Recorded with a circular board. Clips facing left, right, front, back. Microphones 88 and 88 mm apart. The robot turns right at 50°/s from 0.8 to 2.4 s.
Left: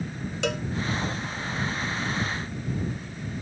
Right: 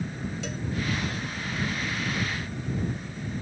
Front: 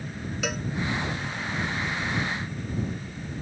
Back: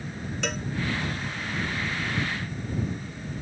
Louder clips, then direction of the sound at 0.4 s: Left 6 dB, front 1 dB; 85° left.